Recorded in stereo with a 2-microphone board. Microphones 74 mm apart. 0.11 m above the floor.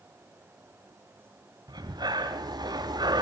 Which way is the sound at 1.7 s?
70° right (ahead or behind).